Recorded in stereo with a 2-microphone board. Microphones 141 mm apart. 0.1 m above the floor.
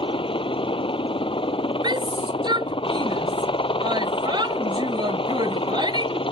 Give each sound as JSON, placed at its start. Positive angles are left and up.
{"t": 0.0, "sound": "a helicopter", "side_deg": 40}
{"t": 1.8, "sound": "a shout", "side_deg": -30}